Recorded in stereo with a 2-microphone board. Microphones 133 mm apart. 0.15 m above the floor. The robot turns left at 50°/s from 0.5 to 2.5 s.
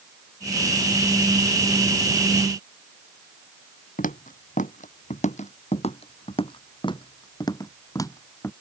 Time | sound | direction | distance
4.0 | footsteps | 85° left | ?